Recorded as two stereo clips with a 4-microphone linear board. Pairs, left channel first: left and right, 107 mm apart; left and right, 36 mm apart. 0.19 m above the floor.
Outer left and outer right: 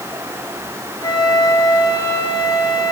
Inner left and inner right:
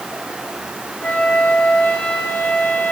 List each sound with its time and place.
1.0 s a flute: 40° left (ahead or behind), 1.3 m